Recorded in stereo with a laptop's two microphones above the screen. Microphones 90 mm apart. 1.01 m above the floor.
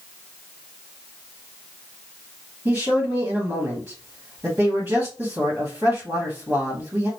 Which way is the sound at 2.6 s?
30° right (ahead or behind).